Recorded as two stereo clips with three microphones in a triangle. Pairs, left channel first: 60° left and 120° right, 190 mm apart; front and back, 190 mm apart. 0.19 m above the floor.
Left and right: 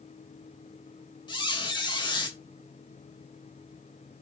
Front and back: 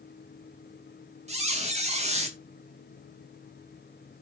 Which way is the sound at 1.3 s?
125° left.